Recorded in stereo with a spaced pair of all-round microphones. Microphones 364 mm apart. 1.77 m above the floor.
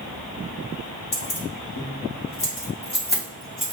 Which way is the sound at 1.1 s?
60° left (ahead or behind).